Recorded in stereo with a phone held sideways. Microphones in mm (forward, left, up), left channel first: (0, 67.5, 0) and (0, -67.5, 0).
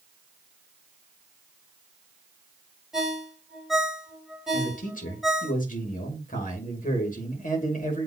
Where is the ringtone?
5° right (ahead or behind), 2 m.